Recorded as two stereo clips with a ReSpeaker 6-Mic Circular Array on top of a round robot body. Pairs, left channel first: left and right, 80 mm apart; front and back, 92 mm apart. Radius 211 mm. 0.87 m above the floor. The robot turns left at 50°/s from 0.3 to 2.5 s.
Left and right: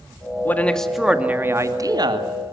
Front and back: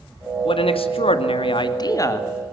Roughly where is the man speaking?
Ahead left.